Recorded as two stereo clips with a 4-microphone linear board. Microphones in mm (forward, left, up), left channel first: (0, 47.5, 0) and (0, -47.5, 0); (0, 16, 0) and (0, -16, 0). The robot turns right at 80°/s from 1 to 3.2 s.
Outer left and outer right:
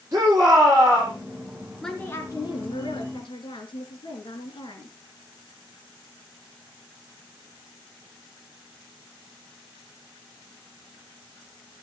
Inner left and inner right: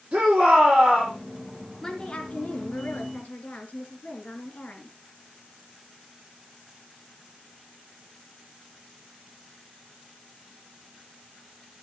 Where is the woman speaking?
5° left, 2.5 m; by 5.0 s 115° left, 2.5 m.